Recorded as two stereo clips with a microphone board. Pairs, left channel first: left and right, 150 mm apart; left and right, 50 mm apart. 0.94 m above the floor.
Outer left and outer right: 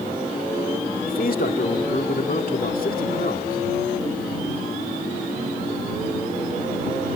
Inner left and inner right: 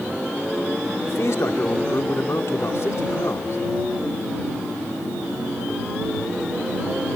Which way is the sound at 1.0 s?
65° left (ahead or behind).